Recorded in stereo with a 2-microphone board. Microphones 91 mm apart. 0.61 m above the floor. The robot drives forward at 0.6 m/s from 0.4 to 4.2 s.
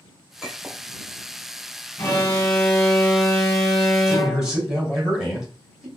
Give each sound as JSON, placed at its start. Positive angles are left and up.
{"t": 0.4, "sound": "a clink", "side_deg": -5, "distance_m": 1.6}
{"t": 2.0, "sound": "an alarm", "side_deg": 20, "distance_m": 1.0}
{"t": 4.1, "sound": "a man speaking", "side_deg": -10, "distance_m": 2.0}